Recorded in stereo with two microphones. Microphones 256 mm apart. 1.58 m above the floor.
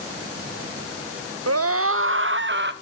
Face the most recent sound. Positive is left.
turn(degrees=-45)  # may be behind; listen again after turning